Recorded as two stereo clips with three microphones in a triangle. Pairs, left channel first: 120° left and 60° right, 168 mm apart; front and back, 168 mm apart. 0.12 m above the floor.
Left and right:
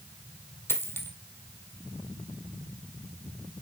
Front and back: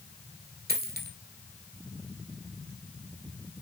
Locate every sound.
0.7 s a dropped coin: 165° right, 1.4 m